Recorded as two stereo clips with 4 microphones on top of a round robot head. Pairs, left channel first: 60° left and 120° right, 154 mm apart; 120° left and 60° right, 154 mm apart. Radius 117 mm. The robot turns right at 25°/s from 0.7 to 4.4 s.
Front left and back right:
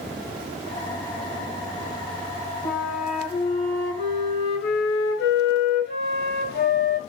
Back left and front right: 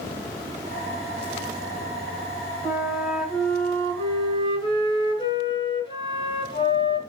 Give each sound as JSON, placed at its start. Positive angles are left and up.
{"t": 2.6, "sound": "a flute", "azimuth_deg": 20, "distance_m": 3.0}